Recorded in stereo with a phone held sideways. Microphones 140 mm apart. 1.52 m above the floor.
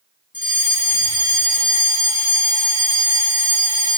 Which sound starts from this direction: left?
A fire alarm, at 0.3 s.